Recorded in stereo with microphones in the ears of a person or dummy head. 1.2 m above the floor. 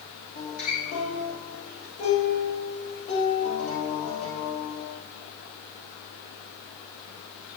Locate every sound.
0.3 s a guitar: 40° left (ahead or behind), 3 m